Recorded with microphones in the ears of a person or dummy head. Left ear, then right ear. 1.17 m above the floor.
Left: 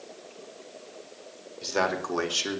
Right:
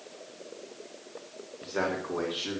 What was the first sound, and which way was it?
A man speaking, 80° left.